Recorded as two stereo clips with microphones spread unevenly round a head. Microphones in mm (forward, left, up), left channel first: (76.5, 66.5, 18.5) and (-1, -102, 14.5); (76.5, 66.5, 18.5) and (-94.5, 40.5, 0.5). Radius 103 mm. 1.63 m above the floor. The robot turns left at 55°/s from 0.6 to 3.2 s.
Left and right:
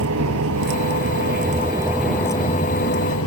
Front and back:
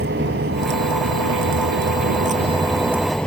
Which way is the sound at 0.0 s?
125° right.